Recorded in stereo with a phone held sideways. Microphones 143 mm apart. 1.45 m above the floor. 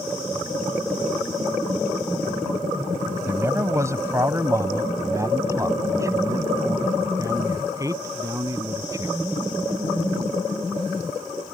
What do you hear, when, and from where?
3.3 s a man speaking: 20° right (ahead or behind); by 9.1 s 25° right (ahead or behind)